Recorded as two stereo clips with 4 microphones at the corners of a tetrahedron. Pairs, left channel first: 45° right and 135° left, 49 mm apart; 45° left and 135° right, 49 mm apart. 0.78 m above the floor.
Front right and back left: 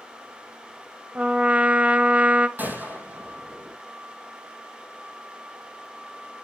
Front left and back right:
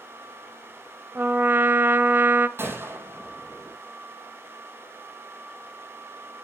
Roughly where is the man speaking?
I don't hear a man speaking.